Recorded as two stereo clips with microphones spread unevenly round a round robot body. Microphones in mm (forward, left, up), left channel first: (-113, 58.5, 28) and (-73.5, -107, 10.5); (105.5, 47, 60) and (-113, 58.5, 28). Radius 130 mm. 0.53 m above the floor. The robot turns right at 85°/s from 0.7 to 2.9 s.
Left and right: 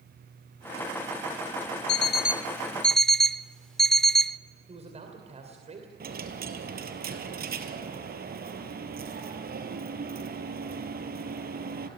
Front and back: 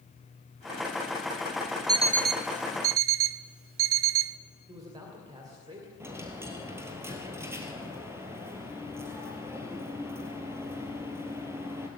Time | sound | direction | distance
1.9 | an alarm clock | 105° left | 0.6 m
4.7 | a man speaking | 115° right | 2.5 m
6.0 | a dropped coin | 100° right | 2.0 m